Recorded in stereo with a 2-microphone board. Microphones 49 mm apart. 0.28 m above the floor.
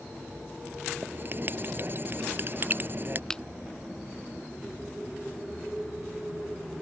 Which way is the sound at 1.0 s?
45° right (ahead or behind).